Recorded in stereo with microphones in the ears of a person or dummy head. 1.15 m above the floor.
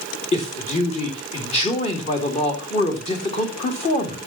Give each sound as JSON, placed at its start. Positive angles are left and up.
{"t": 0.3, "sound": "a man speaking", "side_deg": 30, "distance_m": 2.5}